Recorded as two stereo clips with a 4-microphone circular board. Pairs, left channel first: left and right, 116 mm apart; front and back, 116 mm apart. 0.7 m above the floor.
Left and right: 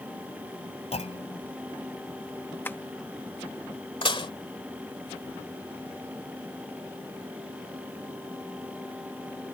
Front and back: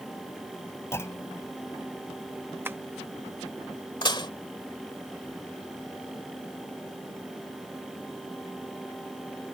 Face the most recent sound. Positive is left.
turn(degrees=50)